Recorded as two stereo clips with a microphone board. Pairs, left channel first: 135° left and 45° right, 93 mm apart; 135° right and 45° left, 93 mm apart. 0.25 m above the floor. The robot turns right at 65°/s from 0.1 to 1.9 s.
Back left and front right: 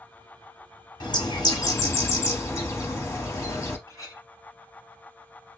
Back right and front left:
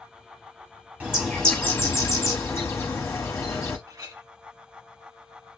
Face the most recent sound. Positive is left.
turn(degrees=85)